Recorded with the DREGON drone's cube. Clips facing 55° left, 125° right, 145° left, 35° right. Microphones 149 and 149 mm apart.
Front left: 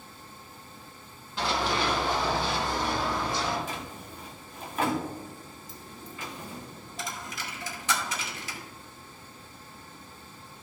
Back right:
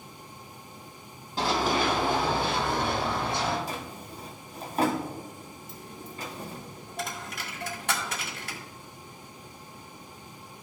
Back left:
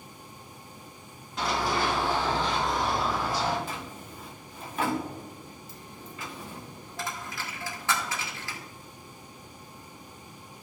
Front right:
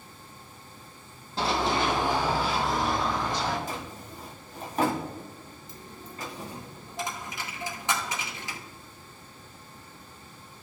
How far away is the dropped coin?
About 2 m.